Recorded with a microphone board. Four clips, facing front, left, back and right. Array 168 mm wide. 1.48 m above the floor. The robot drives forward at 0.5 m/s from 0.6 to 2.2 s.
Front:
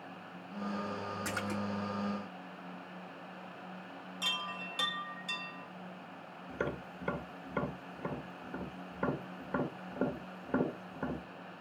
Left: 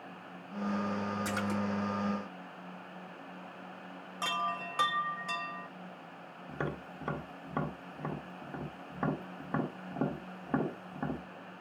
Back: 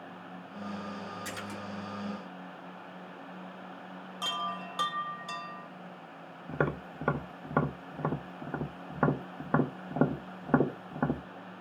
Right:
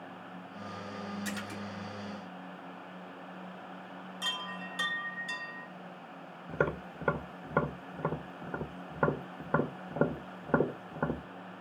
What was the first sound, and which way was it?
A splash, 45° left.